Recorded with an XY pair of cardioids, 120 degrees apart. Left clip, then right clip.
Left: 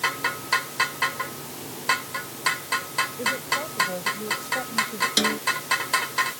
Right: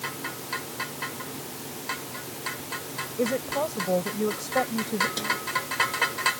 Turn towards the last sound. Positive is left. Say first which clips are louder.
# left 5 dB
turn(degrees=55)